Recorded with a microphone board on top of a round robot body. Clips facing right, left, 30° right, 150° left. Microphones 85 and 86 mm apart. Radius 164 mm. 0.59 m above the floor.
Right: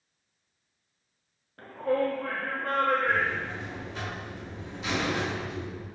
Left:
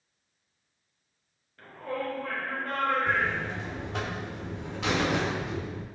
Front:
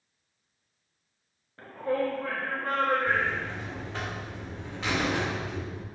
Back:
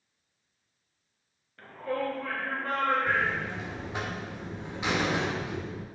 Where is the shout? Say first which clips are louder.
Right 7 dB, front 3 dB; 85° right, 1.3 m; by 3.8 s 90° right, 3.5 m.